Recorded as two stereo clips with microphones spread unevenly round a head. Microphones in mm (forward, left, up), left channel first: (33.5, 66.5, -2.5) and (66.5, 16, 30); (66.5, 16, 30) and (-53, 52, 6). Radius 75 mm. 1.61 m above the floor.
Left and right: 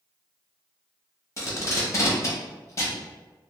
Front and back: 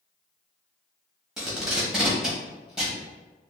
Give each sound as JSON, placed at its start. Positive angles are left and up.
{"t": 1.4, "sound": "tape being pulled", "azimuth_deg": 60, "distance_m": 1.0}